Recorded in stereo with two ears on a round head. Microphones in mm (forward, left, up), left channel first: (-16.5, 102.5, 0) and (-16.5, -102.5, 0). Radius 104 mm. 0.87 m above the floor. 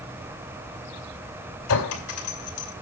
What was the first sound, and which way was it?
A clink, 75° left (ahead or behind).